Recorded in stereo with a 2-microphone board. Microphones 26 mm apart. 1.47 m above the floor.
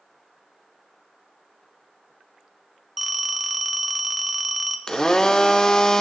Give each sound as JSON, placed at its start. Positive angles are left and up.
{"t": 3.0, "sound": "a phone ringing", "side_deg": -5, "distance_m": 0.7}
{"t": 4.9, "sound": "a blender", "side_deg": 20, "distance_m": 0.5}